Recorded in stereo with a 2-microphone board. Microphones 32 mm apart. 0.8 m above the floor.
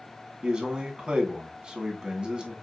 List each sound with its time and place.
0.4 s a man speaking: 30° right (ahead or behind), 1.2 m